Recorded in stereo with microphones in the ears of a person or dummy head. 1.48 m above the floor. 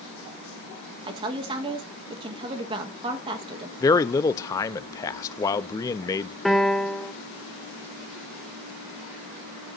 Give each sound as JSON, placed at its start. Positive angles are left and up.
{"t": 1.1, "sound": "a woman speaking", "side_deg": -30, "distance_m": 1.3}
{"t": 3.8, "sound": "a man speaking", "side_deg": 25, "distance_m": 0.6}
{"t": 6.5, "sound": "a piano", "side_deg": 0, "distance_m": 0.5}